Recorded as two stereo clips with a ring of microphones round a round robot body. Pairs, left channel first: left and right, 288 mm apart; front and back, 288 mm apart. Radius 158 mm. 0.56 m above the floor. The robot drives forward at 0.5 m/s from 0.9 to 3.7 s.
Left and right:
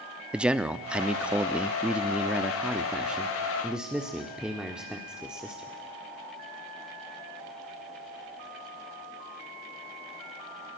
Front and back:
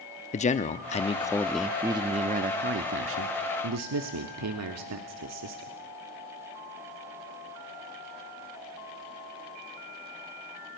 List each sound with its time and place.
0.3 s a man speaking: 10° right, 0.9 m; by 5.8 s 175° right, 1.4 m